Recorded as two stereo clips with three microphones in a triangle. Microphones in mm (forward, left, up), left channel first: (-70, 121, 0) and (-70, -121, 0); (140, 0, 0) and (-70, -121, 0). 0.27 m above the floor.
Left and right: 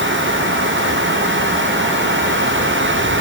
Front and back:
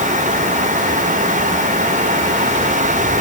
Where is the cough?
No cough in this recording.